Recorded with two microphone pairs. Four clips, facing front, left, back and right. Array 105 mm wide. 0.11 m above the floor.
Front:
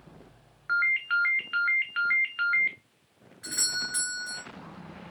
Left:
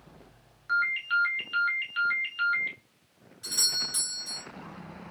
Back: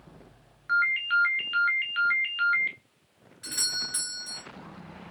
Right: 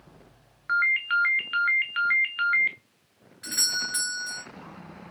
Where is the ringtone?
65° right, 0.6 m.